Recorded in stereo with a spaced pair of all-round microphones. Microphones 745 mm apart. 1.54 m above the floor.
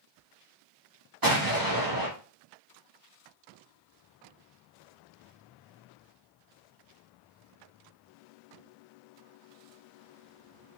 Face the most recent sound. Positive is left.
turn(degrees=-30)  # may be behind; listen again after turning